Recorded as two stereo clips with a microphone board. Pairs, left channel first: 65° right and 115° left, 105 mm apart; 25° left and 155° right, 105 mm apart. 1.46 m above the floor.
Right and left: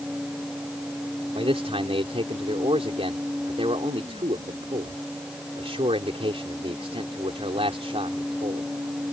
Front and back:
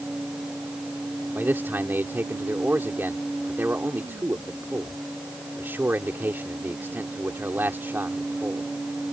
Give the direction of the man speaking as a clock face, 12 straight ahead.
8 o'clock.